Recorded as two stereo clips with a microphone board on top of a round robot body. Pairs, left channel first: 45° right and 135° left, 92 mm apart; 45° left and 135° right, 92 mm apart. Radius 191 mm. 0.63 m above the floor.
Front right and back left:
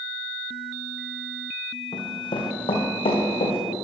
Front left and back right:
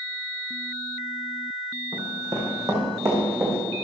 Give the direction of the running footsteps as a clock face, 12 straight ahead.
3 o'clock.